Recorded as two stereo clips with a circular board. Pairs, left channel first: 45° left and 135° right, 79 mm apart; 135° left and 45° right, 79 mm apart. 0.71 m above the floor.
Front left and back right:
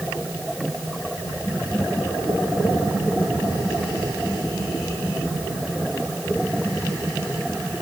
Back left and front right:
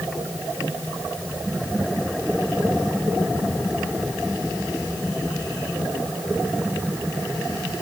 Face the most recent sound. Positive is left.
No sound to turn to.